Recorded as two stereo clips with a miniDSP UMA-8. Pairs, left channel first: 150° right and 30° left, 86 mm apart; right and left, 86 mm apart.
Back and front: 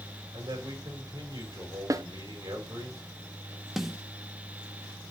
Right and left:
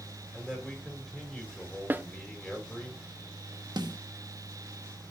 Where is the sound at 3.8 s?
115° left, 1.0 m.